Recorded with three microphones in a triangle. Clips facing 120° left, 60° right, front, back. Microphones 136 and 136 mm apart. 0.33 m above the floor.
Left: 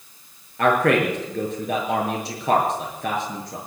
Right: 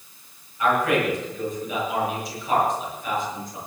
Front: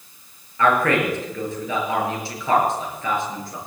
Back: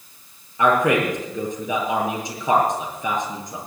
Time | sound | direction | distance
0.6 | a man speaking | 105° left | 6 m